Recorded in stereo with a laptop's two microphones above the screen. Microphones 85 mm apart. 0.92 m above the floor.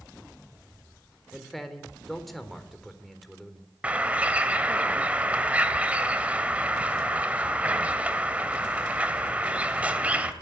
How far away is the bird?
About 2 m.